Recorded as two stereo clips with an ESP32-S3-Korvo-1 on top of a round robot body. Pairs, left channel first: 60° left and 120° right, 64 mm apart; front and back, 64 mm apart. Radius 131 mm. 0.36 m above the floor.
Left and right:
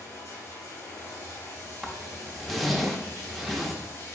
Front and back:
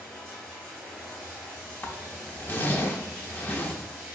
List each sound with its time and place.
0.0 s running water: 70° left, 1.9 m
1.8 s a zipper: 30° right, 0.8 m